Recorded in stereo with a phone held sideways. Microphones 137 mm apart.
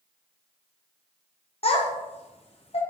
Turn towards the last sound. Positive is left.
turn(degrees=45)  # may be behind; listen again after turning